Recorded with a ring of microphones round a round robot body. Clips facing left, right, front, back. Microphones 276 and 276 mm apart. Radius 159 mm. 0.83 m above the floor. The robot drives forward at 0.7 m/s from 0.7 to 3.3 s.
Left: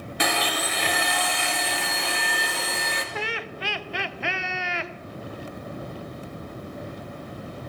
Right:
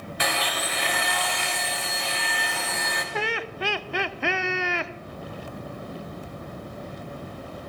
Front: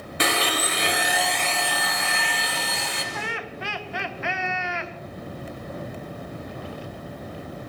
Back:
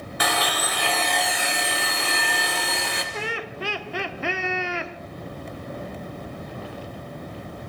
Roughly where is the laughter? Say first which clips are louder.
Right 3 dB, back 2 dB; behind right.